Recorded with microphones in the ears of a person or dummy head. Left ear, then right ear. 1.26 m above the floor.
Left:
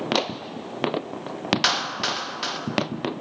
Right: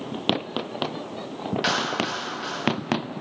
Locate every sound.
1.6 s a clap: 50° left (ahead or behind), 1.2 m